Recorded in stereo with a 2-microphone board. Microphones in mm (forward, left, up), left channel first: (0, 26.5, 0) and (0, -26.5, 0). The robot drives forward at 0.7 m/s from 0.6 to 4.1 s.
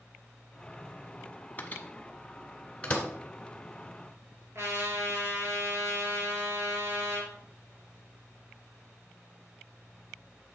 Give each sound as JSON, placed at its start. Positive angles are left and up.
{"t": 1.6, "sound": "a microwave", "side_deg": 30, "distance_m": 1.1}
{"t": 4.5, "sound": "a trumpet", "side_deg": -50, "distance_m": 3.0}